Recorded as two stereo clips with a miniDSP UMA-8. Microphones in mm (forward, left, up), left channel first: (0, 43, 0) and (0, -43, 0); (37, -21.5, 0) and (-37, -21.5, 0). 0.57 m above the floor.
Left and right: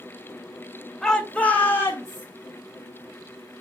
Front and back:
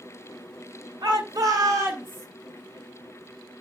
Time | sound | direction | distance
1.0 | a shout | 175° left | 2.0 m